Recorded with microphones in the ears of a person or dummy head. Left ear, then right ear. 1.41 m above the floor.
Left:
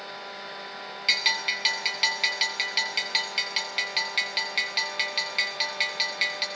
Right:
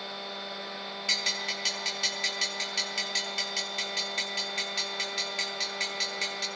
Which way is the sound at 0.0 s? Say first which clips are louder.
Even; 35° left (ahead or behind).